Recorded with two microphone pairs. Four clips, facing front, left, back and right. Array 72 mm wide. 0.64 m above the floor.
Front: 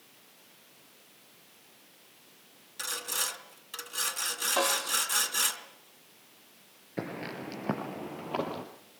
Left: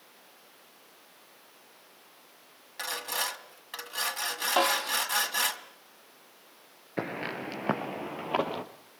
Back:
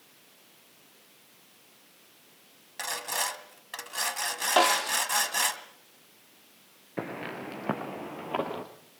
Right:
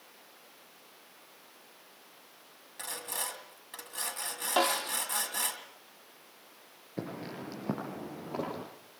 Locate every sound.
2.8 s sawing: 150° left, 2 m
4.6 s a snare drum: 165° left, 1.2 m
7.0 s footsteps: 105° left, 5 m; by 8.6 s 100° left, 6 m